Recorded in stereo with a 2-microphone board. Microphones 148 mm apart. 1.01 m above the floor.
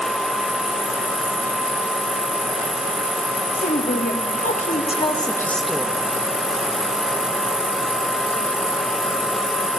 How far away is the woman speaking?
About 1.7 m.